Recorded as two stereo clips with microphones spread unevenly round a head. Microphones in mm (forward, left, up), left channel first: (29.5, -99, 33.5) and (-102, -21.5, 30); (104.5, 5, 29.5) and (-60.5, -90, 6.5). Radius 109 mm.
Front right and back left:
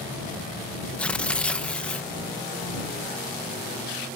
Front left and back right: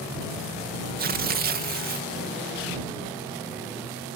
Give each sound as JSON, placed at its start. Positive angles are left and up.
{"t": 1.0, "sound": "tearing paper", "azimuth_deg": -115}